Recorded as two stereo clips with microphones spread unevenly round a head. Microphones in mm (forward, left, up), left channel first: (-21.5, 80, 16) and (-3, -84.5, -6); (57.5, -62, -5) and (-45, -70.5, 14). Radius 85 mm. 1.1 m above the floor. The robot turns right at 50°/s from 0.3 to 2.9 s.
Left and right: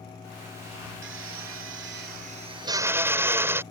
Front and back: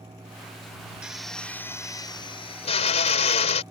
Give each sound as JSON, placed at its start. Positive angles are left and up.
{"t": 1.0, "sound": "a drill", "azimuth_deg": -100}